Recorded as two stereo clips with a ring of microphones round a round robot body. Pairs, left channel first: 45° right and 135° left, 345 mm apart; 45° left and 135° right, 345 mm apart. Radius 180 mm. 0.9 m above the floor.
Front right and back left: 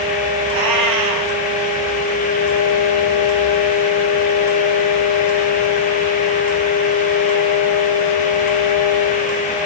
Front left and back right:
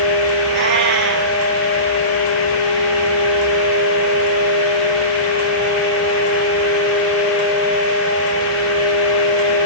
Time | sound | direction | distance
0.5 | a cat meowing | 165° left | 5 m